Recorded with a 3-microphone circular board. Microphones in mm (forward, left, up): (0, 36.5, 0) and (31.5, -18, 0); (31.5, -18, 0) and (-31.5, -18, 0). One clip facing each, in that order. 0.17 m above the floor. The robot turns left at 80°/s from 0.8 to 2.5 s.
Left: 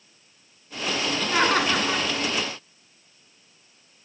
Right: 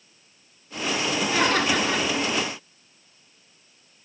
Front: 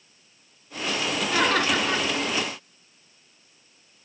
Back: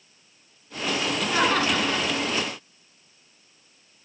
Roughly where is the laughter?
Left.